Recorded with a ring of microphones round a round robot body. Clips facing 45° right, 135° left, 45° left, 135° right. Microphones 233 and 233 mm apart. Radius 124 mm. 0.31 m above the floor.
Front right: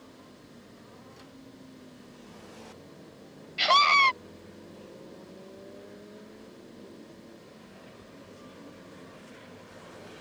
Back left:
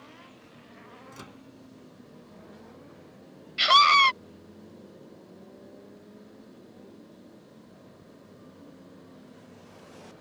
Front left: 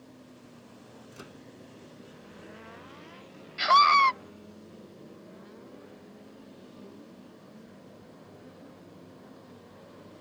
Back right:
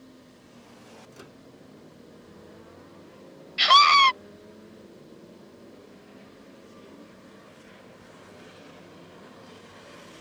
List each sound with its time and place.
1.1 s a microwave: 130° left
3.6 s a scream: 160° right